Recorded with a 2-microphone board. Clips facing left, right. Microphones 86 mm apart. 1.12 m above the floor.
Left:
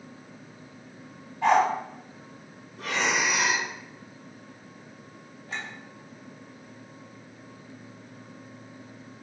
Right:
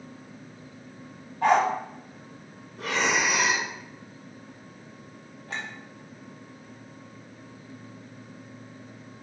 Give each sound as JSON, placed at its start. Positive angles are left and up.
{"t": 1.4, "sound": "a dog barking", "side_deg": -50, "distance_m": 1.3}
{"t": 2.8, "sound": "breathing", "side_deg": -55, "distance_m": 1.2}
{"t": 5.5, "sound": "a clink", "side_deg": -70, "distance_m": 1.2}